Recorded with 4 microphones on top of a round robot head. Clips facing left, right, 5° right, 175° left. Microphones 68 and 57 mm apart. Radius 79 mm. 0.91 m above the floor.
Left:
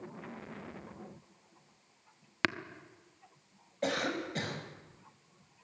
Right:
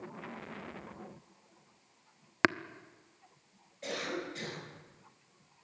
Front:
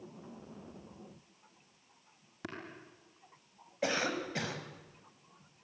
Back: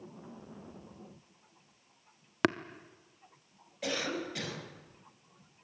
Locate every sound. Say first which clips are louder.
2.4 s tapping: right 5 dB, back 16 dB; 155° right, 0.9 m
3.8 s a cough: left 4 dB, front 2 dB; 55° left, 6.5 m